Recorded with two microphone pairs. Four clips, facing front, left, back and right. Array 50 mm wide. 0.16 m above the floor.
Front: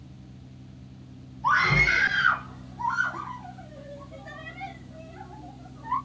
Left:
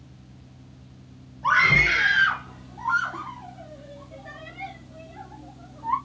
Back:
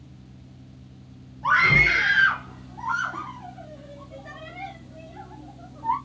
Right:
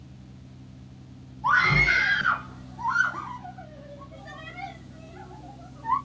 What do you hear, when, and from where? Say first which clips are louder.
1.4 s a scream: left 2 dB, back 3 dB; 135° left, 3.5 m; by 6.0 s 170° left, 7 m